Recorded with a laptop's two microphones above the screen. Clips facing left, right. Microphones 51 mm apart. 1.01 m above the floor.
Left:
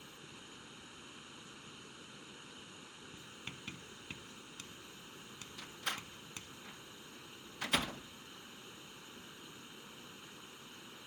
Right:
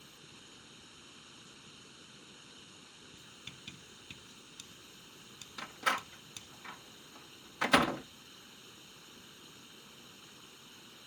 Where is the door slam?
85° right.